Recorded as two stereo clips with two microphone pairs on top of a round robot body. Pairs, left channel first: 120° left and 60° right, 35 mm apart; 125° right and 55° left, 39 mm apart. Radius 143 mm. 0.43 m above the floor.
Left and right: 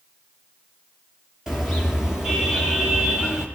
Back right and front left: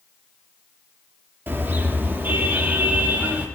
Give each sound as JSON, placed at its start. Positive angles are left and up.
{"t": 1.5, "sound": "a car horn", "azimuth_deg": 20, "distance_m": 5.0}